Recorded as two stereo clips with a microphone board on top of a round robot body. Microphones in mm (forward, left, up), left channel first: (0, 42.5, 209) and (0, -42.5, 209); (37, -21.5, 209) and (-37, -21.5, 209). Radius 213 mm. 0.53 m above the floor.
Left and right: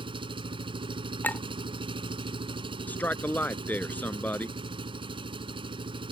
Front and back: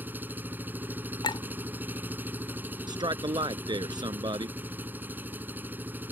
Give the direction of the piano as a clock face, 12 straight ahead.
I don't hear a piano.